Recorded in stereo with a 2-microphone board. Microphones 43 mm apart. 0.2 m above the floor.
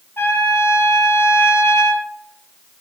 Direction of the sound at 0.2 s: 65° left (ahead or behind).